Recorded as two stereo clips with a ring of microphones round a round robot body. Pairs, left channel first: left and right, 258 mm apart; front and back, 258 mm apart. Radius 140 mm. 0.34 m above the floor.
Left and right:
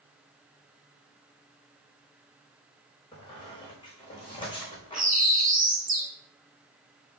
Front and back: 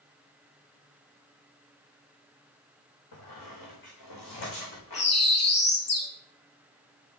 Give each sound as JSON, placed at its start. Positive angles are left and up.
{"t": 3.1, "sound": "a squeak", "azimuth_deg": 20, "distance_m": 5.0}
{"t": 4.9, "sound": "a bird", "azimuth_deg": -30, "distance_m": 4.5}